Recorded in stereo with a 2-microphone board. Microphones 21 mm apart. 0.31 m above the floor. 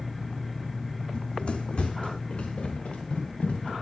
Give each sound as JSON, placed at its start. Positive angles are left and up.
{"t": 1.1, "sound": "running footsteps", "side_deg": 60, "distance_m": 0.6}